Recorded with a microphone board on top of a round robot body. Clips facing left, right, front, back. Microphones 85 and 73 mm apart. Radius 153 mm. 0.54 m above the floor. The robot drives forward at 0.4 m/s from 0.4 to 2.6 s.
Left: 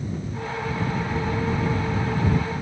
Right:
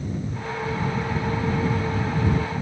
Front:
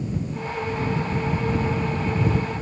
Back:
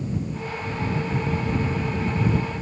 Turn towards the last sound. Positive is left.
No sound to turn to.